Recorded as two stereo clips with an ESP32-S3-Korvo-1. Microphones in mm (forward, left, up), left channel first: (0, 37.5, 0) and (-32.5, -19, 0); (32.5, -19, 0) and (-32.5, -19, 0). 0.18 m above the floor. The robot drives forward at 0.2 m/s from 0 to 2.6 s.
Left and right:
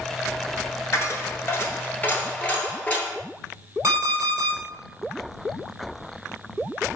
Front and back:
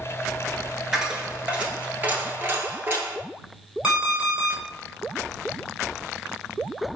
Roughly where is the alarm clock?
Right.